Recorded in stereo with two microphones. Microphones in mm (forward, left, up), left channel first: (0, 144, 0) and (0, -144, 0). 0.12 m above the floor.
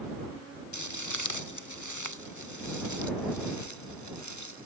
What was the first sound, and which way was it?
Footsteps, 80° left.